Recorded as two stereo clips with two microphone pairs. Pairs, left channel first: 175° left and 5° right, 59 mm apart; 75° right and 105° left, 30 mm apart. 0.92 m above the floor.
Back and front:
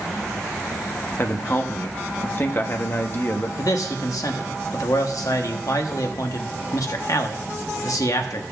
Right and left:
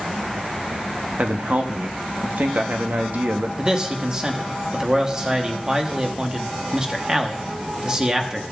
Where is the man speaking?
170° left, 1.1 m.